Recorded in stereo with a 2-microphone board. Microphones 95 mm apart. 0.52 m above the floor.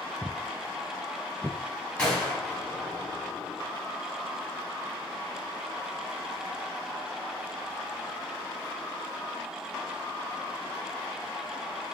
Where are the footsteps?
15° right (ahead or behind), 0.5 m; by 1.6 s 10° right (ahead or behind), 1.3 m.